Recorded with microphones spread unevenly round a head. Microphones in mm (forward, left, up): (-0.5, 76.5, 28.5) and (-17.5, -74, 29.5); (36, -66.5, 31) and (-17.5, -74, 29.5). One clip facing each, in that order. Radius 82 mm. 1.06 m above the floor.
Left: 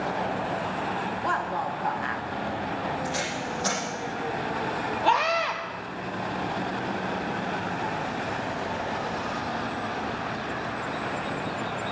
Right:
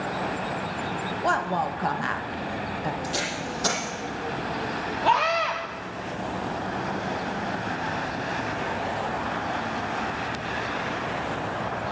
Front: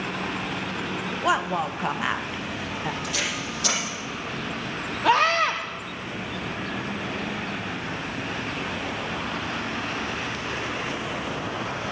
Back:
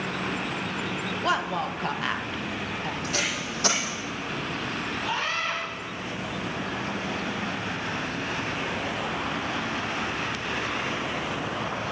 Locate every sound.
1.2 s a woman speaking: 65° right, 1.4 m
3.0 s tape being pulled: 125° right, 7 m
5.0 s a scream: 5° right, 2.5 m